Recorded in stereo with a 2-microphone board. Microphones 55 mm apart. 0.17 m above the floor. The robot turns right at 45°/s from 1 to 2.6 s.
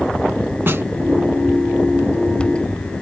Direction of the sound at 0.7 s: 45° right (ahead or behind).